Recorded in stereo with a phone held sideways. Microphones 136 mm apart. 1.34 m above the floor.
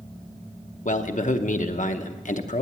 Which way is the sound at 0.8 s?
80° left.